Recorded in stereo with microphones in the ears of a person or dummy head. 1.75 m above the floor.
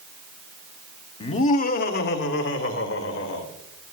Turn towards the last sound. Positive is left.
turn(degrees=80)